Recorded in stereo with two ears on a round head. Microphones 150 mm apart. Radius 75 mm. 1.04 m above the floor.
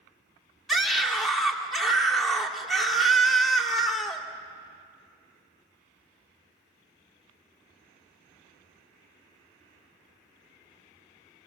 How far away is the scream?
About 2.5 m.